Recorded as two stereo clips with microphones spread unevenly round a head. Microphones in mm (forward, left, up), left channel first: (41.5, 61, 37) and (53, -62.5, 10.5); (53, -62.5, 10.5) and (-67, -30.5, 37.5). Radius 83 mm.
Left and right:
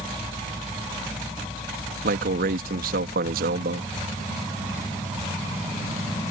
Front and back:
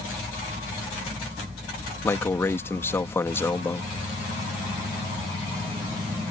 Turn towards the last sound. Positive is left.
turn(degrees=-90)